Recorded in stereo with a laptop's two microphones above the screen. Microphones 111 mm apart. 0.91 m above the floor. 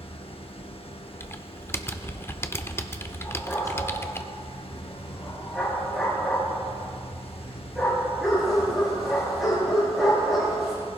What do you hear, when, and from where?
0.0 s a machine running: 55° left (ahead or behind), 0.8 m
1.2 s typing on a keyboard: 20° left (ahead or behind), 0.6 m
3.2 s a dog barking: centre (ahead or behind), 4.5 m